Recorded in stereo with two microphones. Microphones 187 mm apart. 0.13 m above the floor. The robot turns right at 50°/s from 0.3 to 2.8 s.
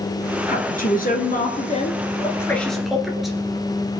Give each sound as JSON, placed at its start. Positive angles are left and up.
{"t": 0.5, "sound": "a woman speaking", "azimuth_deg": 65, "distance_m": 2.0}